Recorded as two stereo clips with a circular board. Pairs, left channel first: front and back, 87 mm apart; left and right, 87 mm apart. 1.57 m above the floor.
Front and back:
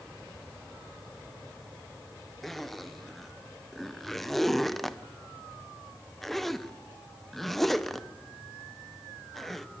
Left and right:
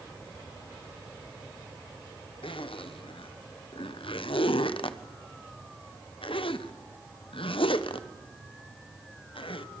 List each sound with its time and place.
2.4 s a zipper: 85° left, 1.0 m